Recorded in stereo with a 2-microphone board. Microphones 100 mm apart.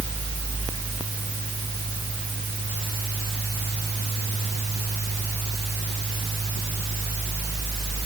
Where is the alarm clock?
I don't hear an alarm clock.